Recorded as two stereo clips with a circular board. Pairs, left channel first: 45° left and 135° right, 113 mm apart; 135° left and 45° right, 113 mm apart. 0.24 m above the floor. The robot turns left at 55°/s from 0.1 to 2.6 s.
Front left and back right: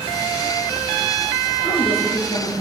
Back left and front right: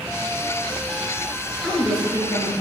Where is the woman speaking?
60° left, 4 m; by 2.5 s 10° left, 4 m.